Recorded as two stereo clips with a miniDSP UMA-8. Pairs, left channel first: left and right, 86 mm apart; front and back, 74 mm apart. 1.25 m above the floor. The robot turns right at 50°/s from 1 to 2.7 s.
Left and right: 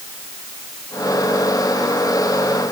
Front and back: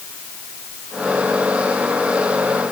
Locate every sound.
Only background noise.